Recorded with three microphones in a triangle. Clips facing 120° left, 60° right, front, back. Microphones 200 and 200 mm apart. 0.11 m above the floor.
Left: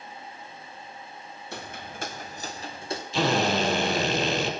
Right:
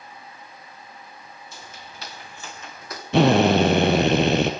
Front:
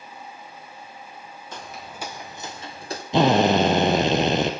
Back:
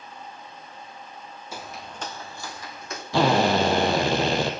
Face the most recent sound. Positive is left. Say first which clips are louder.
# right 9 dB, front 3 dB
turn(degrees=-65)